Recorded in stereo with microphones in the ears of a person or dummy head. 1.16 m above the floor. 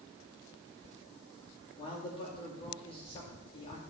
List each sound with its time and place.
1.8 s a man speaking: 35° left (ahead or behind), 2.5 m